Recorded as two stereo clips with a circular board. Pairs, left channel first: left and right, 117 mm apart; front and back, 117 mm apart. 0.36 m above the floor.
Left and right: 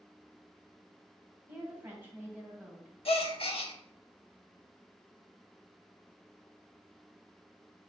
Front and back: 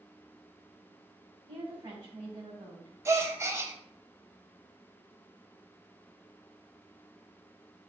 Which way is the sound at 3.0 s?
115° left.